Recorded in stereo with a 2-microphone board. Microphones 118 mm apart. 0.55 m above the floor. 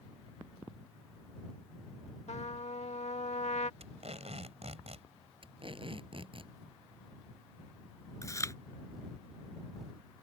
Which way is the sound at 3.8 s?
65° right (ahead or behind).